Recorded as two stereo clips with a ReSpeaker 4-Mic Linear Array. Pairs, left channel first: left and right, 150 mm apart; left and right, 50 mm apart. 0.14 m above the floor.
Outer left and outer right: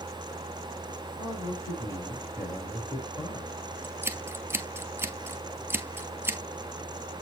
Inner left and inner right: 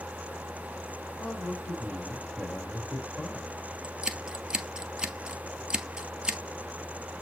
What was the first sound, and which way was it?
A man speaking, 20° left (ahead or behind).